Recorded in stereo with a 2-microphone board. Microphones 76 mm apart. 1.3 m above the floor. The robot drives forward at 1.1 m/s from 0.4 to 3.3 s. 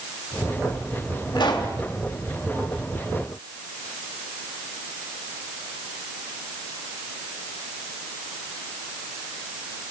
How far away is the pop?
About 3 m.